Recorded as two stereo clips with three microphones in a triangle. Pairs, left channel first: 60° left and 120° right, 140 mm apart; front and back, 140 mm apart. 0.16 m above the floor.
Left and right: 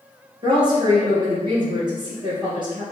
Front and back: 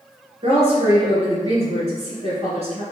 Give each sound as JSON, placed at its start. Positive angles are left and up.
{"t": 0.4, "sound": "a woman speaking", "azimuth_deg": -165, "distance_m": 1.9}